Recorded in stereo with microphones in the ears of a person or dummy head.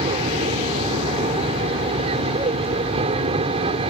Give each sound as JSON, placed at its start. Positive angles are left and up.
{"t": 0.0, "sound": "an aircraft", "side_deg": -30}